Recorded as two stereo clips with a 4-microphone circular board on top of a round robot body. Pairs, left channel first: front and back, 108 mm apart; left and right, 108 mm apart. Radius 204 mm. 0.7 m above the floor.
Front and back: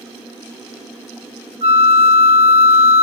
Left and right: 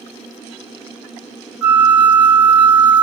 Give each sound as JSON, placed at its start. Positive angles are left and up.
{"t": 1.6, "sound": "a flute", "azimuth_deg": -170, "distance_m": 1.4}